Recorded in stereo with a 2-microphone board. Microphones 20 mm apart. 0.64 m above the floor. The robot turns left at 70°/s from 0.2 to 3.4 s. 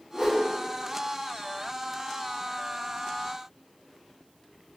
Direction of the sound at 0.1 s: 15° right (ahead or behind).